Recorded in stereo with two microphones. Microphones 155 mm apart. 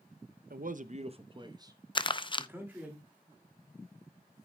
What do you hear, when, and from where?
0.5 s a man speaking: 70° right (ahead or behind), 0.6 m; by 3.0 s 10° right (ahead or behind), 2 m
1.9 s crumpling: 30° left (ahead or behind), 0.5 m